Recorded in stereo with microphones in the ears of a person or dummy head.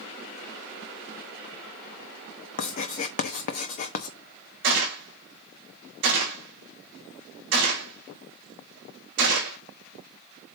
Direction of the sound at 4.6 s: 60° right (ahead or behind).